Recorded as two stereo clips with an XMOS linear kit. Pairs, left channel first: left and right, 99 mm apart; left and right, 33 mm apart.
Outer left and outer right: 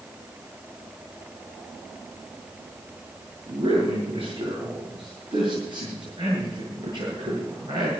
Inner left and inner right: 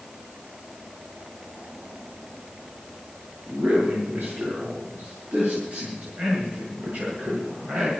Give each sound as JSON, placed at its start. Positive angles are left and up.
{"t": 3.5, "sound": "a man speaking", "side_deg": -60, "distance_m": 7.0}